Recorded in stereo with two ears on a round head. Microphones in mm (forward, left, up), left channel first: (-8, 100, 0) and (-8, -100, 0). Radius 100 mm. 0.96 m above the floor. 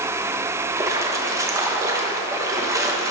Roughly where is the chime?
No chime in this recording.